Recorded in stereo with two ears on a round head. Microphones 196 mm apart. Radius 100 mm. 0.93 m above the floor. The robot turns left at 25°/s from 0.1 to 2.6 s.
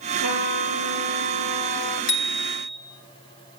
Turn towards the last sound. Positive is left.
turn(degrees=40)  # may be behind; listen again after turning